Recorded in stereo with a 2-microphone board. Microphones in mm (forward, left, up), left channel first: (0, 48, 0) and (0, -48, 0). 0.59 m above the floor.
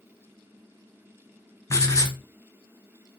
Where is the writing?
30° left (ahead or behind), 0.7 m.